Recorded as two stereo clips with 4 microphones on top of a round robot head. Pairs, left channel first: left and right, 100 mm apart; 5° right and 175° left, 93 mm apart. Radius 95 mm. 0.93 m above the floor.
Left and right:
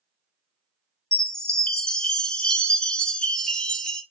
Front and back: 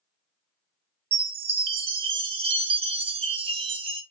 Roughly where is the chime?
Behind.